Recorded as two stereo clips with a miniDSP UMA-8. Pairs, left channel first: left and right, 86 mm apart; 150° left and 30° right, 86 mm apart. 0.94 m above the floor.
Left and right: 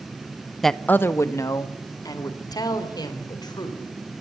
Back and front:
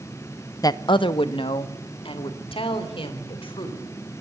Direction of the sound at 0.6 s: Straight behind.